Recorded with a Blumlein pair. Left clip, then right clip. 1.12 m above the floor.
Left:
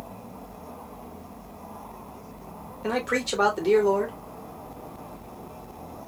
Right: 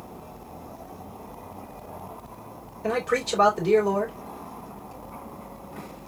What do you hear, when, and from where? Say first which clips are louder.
2.8 s a man speaking: right 1 dB; 5° left, 3 m